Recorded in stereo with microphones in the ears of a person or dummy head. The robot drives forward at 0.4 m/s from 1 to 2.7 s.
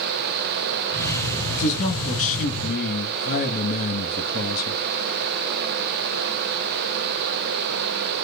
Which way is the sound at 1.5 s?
40° left (ahead or behind).